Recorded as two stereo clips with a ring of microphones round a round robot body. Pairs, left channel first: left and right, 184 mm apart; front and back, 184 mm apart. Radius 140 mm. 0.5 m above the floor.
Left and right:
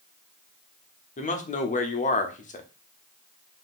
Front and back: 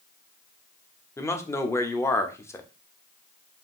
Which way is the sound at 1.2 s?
70° left.